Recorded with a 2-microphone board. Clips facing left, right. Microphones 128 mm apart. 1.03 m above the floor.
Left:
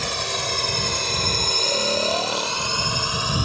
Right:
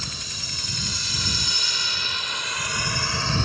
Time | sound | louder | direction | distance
0.0 | a drone | left 12 dB | 75° left (ahead or behind) | ?
1.6 | snoring | left 13 dB | 75° left (ahead or behind) | ?